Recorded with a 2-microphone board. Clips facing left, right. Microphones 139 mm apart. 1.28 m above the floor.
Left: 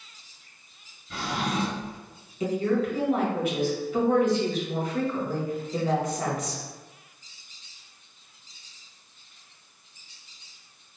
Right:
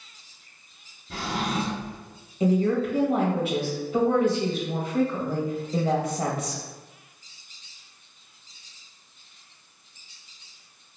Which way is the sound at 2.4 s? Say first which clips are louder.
Right 3 dB; 30° right (ahead or behind).